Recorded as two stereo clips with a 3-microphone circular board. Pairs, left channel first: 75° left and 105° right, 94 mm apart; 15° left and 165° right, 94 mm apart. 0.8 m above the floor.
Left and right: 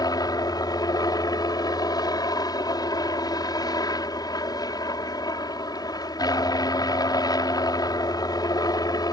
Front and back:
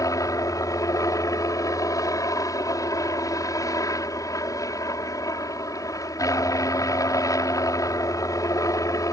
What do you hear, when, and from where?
0.0 s a helicopter: 50° left